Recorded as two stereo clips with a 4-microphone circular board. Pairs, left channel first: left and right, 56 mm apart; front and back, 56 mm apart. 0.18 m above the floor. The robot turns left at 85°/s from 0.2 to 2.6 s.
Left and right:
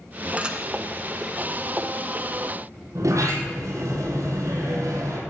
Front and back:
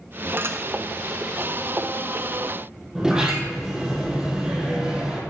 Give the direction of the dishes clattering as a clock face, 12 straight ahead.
5 o'clock.